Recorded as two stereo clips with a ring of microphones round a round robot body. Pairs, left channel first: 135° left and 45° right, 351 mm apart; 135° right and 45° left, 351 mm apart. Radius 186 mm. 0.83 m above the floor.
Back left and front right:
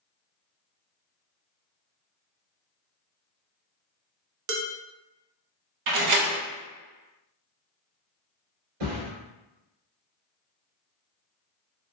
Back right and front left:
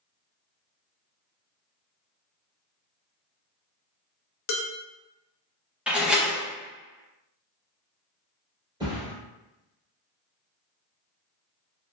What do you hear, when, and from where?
4.5 s dishes clattering: 90° right, 0.6 m
5.9 s a door slam: 40° right, 0.7 m
8.8 s a thud: 30° right, 1.7 m